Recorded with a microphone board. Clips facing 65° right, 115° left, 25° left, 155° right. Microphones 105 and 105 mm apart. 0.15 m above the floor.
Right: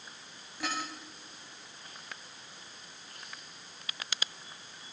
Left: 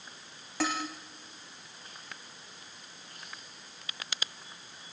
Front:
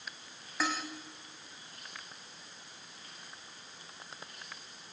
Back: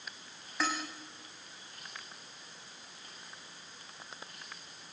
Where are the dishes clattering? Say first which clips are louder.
Left 5 dB, even; 110° left, 6.5 m.